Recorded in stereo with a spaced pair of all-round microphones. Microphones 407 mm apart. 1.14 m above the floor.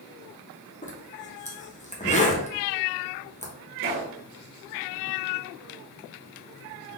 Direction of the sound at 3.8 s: 30° right (ahead or behind).